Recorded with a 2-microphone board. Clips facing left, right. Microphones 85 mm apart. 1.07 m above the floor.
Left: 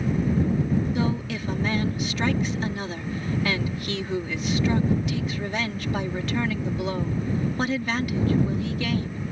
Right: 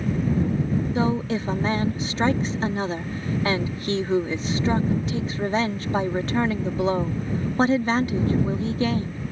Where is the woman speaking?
35° right (ahead or behind).